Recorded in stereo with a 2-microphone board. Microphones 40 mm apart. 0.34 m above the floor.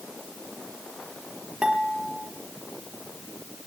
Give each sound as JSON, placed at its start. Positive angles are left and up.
{"t": 1.6, "sound": "dishes clattering", "side_deg": -25, "distance_m": 5.0}